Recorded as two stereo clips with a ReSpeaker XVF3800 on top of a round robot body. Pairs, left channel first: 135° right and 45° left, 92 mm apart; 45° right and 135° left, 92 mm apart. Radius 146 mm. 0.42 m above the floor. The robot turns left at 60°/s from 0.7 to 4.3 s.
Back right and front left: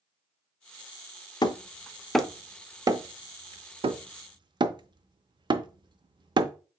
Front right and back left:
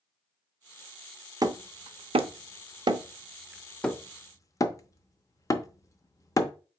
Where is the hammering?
175° right, 0.6 m; by 6.5 s 10° left, 0.6 m.